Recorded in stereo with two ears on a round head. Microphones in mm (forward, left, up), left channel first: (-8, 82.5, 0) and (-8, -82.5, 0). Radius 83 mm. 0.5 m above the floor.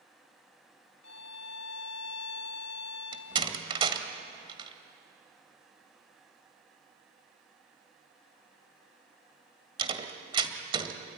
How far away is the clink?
No clink in this recording.